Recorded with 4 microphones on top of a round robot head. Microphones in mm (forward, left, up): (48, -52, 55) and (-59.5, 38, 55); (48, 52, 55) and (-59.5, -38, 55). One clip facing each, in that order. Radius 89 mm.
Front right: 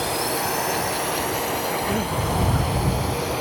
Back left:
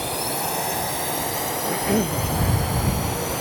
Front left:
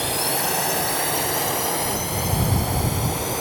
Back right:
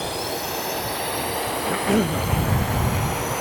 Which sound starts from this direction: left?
A drone, at 0.0 s.